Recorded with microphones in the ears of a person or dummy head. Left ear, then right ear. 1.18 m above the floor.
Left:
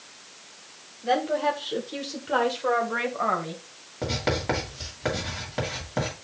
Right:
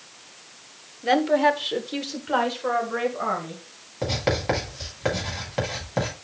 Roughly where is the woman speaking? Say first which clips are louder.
Right 5 dB; right.